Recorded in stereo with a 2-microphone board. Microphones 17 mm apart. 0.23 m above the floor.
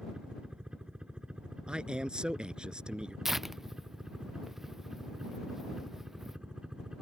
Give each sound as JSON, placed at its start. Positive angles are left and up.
{"t": 0.0, "sound": "a helicopter", "side_deg": -60}
{"t": 1.7, "sound": "a man speaking", "side_deg": -70}
{"t": 3.2, "sound": "tearing paper", "side_deg": -20}